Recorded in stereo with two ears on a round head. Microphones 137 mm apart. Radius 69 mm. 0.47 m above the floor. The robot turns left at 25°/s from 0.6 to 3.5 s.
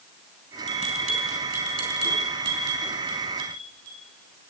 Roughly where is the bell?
Right.